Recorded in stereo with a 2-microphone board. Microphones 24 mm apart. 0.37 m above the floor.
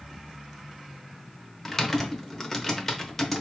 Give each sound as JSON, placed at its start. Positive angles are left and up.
{"t": 1.6, "sound": "typing on a keyboard", "side_deg": 15, "distance_m": 0.9}